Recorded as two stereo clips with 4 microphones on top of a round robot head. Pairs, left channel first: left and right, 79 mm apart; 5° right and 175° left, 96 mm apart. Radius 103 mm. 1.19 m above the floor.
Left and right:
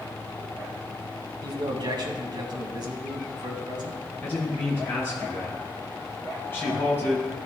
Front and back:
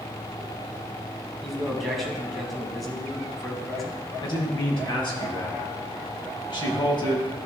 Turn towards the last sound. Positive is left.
turn(degrees=30)